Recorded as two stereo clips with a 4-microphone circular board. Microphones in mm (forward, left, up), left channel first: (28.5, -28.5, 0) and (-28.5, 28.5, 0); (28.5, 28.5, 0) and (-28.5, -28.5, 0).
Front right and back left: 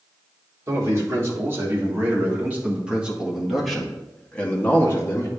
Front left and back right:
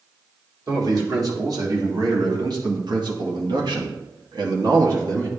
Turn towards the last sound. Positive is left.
turn(degrees=-100)